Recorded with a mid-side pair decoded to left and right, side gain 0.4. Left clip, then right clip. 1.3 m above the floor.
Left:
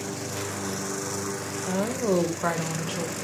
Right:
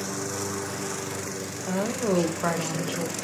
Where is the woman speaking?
Straight ahead, 0.6 m.